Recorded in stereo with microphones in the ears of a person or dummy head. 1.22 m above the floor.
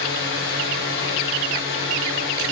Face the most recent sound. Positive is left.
turn(degrees=55)  # may be behind; listen again after turning